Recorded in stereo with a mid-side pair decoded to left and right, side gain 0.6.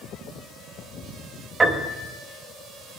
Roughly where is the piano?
Ahead right.